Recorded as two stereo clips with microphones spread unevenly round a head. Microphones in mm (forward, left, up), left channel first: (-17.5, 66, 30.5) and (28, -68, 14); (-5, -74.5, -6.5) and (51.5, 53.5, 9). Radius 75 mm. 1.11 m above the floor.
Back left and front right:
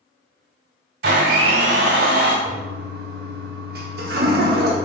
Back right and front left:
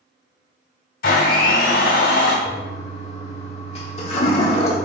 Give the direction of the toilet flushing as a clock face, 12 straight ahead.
3 o'clock.